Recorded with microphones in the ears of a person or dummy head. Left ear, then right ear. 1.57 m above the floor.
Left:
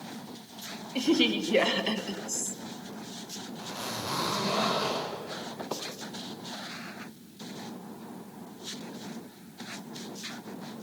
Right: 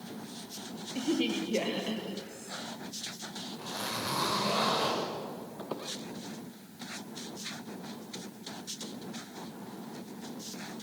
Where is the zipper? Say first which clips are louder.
Even; 15° right (ahead or behind), 5 m.